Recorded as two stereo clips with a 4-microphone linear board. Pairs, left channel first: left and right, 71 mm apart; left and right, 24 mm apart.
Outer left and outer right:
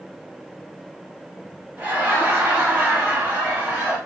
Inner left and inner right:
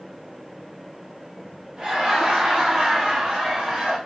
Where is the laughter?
25° right (ahead or behind), 1.1 m.